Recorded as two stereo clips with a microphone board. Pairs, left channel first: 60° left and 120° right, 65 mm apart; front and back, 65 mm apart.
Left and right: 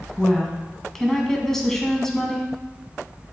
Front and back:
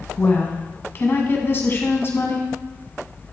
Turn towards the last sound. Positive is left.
turn(degrees=-20)